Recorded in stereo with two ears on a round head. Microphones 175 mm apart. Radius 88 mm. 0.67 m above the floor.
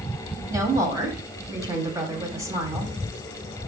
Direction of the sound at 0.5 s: 20° right (ahead or behind).